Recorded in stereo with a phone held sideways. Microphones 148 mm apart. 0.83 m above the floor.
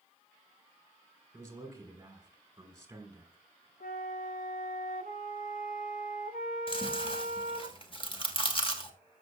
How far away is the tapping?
I don't hear tapping.